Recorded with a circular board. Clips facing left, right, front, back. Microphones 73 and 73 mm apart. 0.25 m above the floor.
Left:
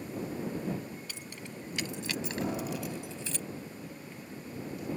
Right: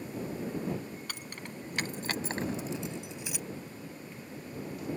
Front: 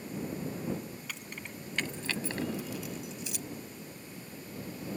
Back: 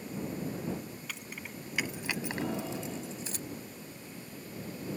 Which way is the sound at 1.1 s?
90° right.